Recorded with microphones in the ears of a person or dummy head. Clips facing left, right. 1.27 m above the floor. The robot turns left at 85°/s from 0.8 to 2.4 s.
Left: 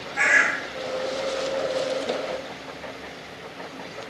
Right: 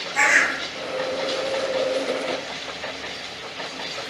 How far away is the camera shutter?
I don't hear a camera shutter.